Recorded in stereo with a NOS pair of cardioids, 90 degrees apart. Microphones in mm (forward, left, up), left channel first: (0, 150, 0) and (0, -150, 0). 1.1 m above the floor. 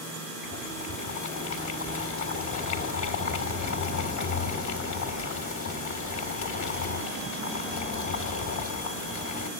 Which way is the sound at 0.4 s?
70° left.